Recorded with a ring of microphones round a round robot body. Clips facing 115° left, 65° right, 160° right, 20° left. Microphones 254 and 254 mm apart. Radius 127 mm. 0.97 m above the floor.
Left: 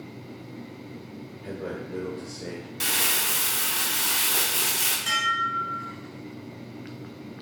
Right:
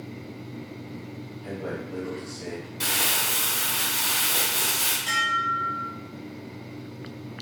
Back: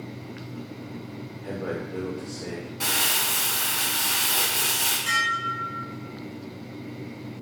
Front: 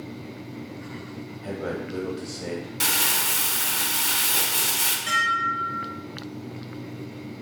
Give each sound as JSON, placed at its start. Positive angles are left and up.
{"t": 1.4, "sound": "a man speaking", "azimuth_deg": 50, "distance_m": 1.0}
{"t": 2.8, "sound": "crumpling", "azimuth_deg": 55, "distance_m": 0.8}
{"t": 5.1, "sound": "dishes clattering", "azimuth_deg": 120, "distance_m": 1.8}